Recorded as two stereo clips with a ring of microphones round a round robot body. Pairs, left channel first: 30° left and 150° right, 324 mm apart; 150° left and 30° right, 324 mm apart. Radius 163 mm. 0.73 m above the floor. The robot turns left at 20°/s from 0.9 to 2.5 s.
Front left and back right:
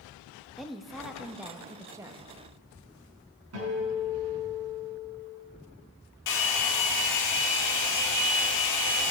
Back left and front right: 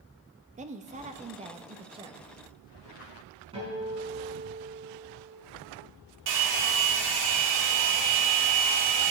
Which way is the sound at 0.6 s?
60° right.